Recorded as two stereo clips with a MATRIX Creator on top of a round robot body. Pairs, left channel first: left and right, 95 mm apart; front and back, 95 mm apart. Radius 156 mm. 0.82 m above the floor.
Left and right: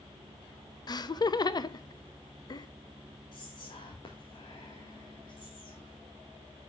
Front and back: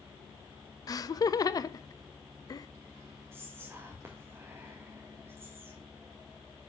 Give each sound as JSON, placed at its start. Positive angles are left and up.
{"t": 0.9, "sound": "laughter", "azimuth_deg": 50, "distance_m": 0.9}
{"t": 3.3, "sound": "whispering", "azimuth_deg": 120, "distance_m": 1.9}